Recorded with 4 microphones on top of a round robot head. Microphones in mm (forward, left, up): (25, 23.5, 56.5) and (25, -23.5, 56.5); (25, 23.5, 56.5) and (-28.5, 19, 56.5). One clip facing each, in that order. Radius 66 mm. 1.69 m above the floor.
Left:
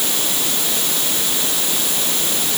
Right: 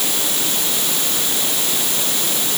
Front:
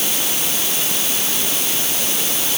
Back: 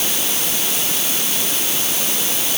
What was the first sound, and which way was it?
Only background noise.